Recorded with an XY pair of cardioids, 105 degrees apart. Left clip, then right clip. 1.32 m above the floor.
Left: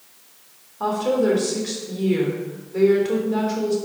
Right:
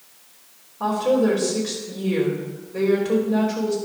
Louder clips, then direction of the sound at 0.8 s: Right 1 dB; 10° left.